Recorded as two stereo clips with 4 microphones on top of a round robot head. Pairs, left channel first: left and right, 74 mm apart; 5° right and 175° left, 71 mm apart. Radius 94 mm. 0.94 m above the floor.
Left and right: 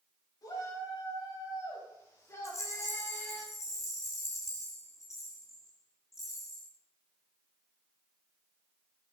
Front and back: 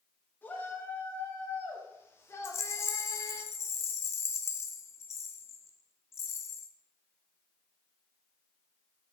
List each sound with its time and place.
0.4 s a shout: 60° left, 6 m; by 3.4 s 20° left, 2 m
2.4 s a rattle: 30° left, 0.6 m